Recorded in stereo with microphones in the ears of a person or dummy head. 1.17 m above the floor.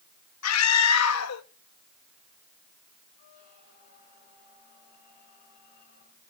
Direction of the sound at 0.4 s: 85° left.